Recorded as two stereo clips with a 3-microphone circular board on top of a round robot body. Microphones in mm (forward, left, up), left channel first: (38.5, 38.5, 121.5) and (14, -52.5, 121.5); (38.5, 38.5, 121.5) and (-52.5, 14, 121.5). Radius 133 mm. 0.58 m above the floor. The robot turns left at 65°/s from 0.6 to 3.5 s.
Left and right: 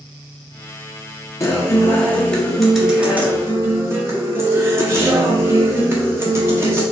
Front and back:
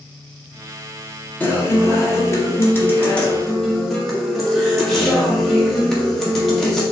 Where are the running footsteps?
No running footsteps in this recording.